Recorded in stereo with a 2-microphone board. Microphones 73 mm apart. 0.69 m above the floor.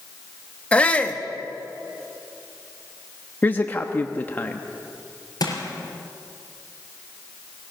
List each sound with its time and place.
0.7 s a shout: 15° left (ahead or behind), 1.1 m
3.4 s a man speaking: 25° left (ahead or behind), 0.8 m
5.4 s crushing: 55° left (ahead or behind), 4 m